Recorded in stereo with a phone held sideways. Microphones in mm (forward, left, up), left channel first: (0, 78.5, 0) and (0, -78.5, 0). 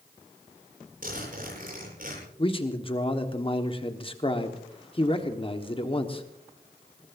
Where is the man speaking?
35° left (ahead or behind), 1.4 m.